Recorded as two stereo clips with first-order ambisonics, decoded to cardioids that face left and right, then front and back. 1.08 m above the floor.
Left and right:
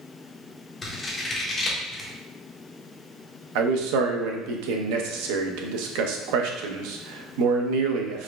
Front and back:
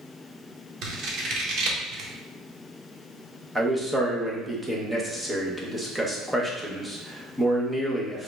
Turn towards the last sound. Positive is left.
turn(degrees=-95)